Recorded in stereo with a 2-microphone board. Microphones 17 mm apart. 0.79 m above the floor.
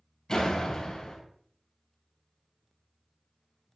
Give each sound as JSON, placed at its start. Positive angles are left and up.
{"t": 0.3, "sound": "a door slam", "side_deg": 45, "distance_m": 5.5}